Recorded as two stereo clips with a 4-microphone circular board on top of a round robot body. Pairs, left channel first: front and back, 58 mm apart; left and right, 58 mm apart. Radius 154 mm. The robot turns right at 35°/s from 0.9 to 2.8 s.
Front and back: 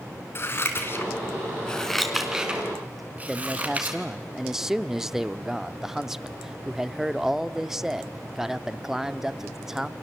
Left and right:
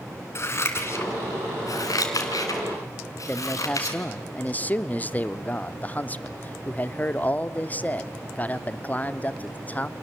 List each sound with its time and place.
0.3 s scissors: 50° left, 3 m; by 4.0 s 115° left, 3 m
3.3 s a man speaking: 105° left, 1.1 m